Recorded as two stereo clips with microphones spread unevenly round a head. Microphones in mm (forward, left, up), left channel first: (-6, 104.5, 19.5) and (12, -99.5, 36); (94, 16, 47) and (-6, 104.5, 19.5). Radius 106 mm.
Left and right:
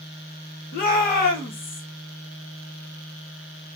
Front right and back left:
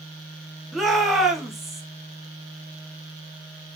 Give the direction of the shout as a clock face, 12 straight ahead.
10 o'clock.